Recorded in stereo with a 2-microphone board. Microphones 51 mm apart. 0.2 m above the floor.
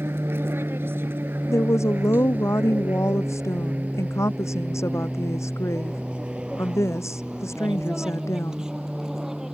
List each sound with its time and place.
0.0 s an aircraft: 60° right (ahead or behind); by 9.5 s 10° right (ahead or behind)
1.5 s a woman speaking: 80° left